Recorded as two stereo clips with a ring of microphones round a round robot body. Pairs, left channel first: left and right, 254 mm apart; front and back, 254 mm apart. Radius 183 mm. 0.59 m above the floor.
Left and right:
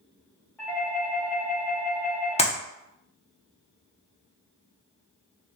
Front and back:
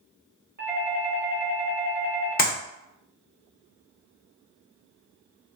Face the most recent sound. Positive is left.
turn(degrees=35)